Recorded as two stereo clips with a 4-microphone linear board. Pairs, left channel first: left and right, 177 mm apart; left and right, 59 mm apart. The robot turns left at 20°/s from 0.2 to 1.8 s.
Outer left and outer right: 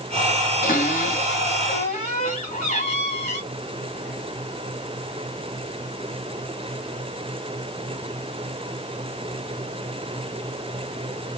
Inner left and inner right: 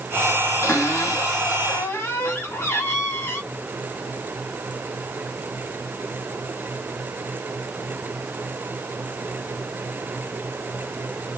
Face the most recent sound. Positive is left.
turn(degrees=40)  # may be behind; listen again after turning